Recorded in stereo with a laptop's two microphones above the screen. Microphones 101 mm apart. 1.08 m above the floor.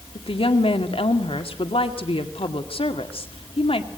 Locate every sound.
0.1 s a woman speaking: 90° left, 2 m